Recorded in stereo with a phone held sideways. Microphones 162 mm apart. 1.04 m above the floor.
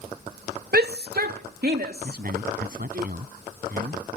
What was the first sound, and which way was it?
A shout, 70° right (ahead or behind).